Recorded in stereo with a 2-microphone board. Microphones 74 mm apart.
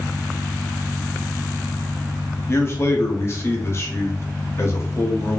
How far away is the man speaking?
About 0.6 m.